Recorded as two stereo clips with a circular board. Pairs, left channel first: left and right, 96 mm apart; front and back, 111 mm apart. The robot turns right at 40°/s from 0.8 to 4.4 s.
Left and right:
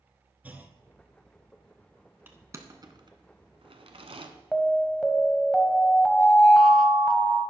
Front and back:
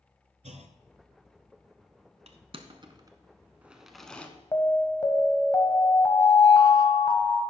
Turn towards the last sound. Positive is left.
turn(degrees=5)